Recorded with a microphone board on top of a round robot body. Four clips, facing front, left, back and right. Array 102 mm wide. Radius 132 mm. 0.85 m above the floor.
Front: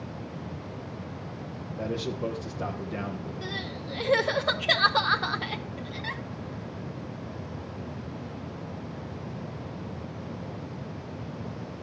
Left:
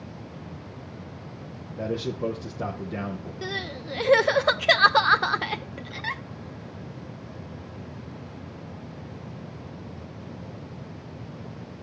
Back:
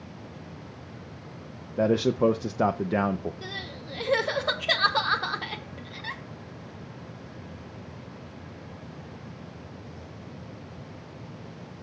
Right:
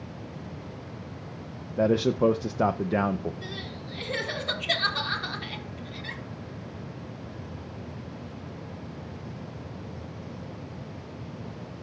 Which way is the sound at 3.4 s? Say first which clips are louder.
Left 5 dB, front 3 dB; 90° left.